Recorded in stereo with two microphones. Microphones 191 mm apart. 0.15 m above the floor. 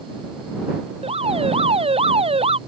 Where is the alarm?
30° right (ahead or behind).